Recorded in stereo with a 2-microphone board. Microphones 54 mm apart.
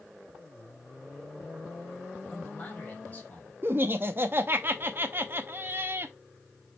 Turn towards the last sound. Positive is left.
turn(degrees=-40)  # may be behind; listen again after turning